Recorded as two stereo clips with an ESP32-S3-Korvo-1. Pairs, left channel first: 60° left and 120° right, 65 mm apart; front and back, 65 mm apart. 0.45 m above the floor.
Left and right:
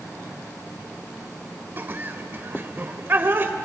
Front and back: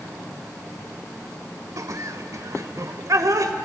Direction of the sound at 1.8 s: 170° right.